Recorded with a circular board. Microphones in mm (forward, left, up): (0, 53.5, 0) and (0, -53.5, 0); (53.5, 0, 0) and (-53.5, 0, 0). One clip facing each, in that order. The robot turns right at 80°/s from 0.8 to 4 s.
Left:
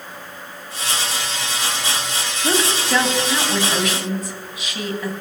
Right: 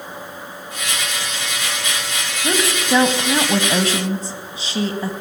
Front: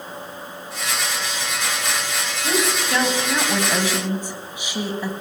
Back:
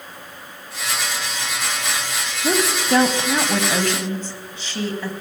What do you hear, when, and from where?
2.4 s a woman speaking: 170° left, 1.1 m; by 5.1 s 65° right, 1.1 m